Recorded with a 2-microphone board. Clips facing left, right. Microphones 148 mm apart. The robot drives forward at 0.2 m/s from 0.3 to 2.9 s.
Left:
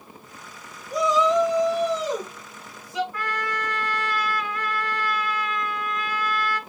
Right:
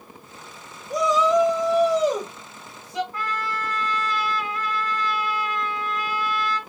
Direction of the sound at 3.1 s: 30° right (ahead or behind).